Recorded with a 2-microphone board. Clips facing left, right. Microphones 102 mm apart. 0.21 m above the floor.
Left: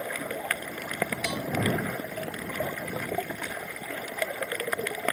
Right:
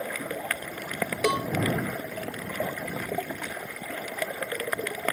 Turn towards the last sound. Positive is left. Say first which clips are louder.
# right 7 dB
turn(degrees=-60)  # may be behind; listen again after turning